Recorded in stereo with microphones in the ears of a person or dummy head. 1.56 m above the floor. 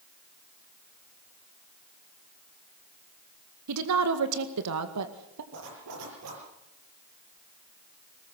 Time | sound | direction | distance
3.7 | a woman speaking | 75° right (ahead or behind) | 1.8 m
5.5 | a zipper | 75° right (ahead or behind) | 6 m